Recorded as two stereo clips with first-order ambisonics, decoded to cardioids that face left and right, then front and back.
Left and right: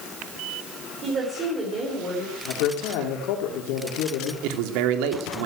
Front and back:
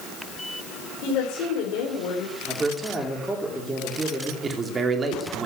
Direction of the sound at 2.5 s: 95° left.